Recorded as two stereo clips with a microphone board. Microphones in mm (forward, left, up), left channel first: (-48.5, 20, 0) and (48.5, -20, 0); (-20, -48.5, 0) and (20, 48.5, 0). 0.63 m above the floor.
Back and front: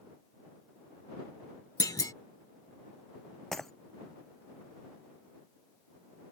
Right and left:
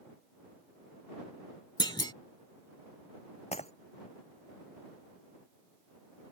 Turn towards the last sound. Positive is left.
turn(degrees=-115)